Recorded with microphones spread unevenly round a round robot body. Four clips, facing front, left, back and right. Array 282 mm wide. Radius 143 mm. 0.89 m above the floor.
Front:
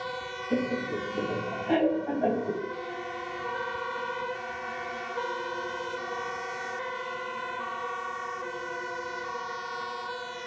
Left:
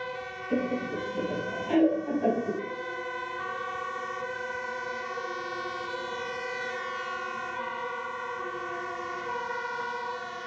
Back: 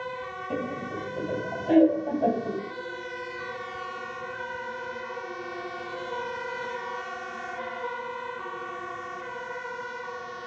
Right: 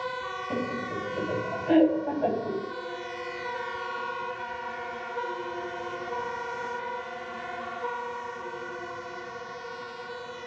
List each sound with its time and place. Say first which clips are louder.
0.5 s laughter: left 4 dB, front 4 dB; 140° right, 5.5 m; by 2.6 s 145° right, 4 m